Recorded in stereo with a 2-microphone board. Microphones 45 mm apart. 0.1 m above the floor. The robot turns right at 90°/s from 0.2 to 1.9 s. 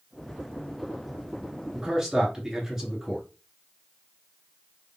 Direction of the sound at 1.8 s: 15° right (ahead or behind).